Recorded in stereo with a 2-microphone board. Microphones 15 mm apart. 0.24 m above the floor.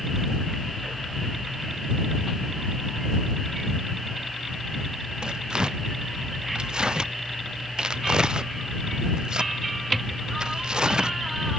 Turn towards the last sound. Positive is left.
turn(degrees=-50)  # may be behind; listen again after turning